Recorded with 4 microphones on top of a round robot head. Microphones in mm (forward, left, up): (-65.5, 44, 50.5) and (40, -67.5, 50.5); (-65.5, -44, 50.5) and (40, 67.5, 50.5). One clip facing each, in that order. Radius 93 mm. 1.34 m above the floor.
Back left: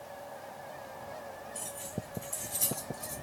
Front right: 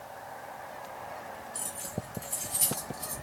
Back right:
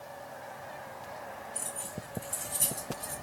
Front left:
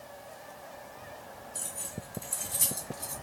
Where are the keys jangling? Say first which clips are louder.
Front right 1 dB, back right 2 dB; 15° left, 1.6 m.